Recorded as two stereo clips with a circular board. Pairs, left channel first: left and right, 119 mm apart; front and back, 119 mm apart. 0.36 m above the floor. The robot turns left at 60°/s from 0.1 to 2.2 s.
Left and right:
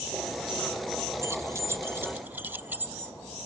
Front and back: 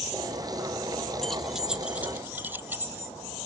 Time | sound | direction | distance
1.2 | keys jangling | 75° right | 0.6 m